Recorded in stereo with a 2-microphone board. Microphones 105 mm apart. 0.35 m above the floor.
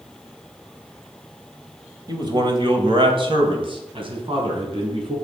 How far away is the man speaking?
About 2 m.